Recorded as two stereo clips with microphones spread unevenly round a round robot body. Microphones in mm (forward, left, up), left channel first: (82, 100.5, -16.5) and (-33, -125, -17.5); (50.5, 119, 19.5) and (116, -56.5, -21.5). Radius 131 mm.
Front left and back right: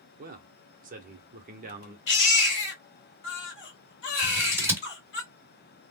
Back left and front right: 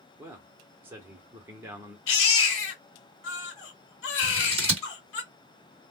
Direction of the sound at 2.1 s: 110° left.